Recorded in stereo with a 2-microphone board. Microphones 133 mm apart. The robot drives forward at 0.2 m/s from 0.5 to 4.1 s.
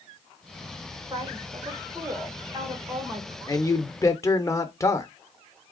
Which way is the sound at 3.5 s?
25° left (ahead or behind).